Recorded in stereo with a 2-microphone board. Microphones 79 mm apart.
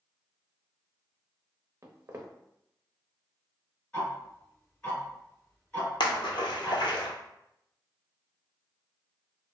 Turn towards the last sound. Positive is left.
turn(degrees=80)